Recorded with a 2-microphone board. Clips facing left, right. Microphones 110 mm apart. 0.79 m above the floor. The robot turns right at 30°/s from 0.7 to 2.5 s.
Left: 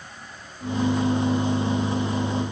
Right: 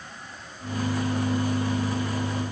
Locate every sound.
Only background noise.